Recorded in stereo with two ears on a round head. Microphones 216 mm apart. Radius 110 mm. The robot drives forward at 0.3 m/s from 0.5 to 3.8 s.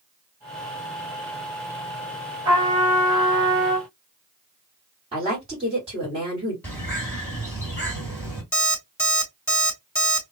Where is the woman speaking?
25° right (ahead or behind), 1.6 m.